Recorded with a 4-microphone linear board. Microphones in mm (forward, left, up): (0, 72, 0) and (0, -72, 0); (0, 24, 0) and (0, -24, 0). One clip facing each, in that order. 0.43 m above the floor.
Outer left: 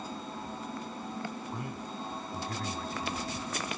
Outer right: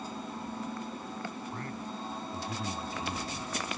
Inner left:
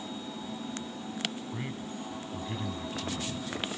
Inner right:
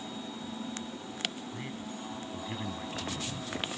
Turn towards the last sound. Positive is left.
turn(degrees=-25)  # may be behind; listen again after turning